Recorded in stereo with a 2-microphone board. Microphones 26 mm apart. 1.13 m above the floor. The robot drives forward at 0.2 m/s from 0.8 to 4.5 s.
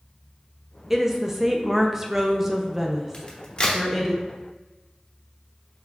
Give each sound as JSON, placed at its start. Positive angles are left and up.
{"t": 0.9, "sound": "a woman speaking", "side_deg": -15, "distance_m": 0.5}
{"t": 3.1, "sound": "a crack", "side_deg": 35, "distance_m": 0.9}